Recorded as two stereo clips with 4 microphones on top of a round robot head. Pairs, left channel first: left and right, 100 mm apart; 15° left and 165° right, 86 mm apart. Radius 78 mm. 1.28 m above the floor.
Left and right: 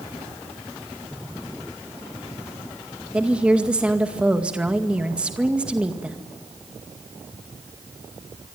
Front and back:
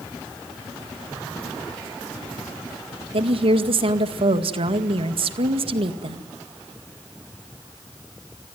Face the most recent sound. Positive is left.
turn(degrees=-170)